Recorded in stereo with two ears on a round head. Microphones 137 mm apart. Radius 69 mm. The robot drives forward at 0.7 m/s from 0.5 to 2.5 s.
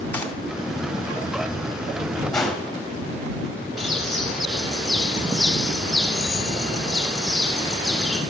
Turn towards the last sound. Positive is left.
turn(degrees=0)  # may be behind; listen again after turning